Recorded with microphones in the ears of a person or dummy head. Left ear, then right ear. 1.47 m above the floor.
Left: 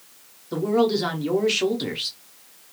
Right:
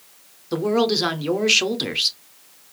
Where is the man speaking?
20° right (ahead or behind), 0.6 m.